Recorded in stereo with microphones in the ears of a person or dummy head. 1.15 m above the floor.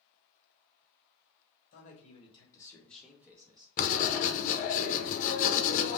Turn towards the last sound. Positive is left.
turn(degrees=40)  # may be behind; listen again after turning